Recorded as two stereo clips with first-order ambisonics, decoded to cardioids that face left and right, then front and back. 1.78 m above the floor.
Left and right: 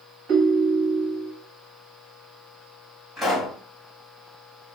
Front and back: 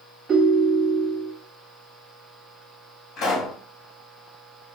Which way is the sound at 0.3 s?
120° right.